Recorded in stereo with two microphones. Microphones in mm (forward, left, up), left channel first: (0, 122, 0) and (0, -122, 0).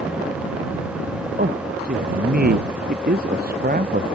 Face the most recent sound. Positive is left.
turn(degrees=-40)  # may be behind; listen again after turning